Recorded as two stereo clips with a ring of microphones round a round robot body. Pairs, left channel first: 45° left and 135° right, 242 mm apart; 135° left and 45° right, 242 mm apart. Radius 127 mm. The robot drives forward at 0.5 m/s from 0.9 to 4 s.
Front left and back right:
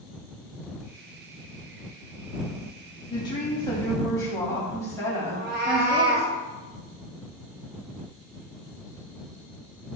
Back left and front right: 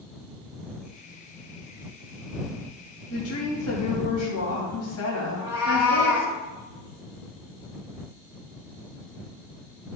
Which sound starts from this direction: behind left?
A woman speaking, at 3.1 s.